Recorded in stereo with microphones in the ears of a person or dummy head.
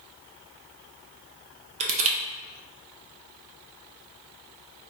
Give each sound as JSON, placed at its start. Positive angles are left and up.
{"t": 1.8, "sound": "crushing", "side_deg": -30, "distance_m": 0.5}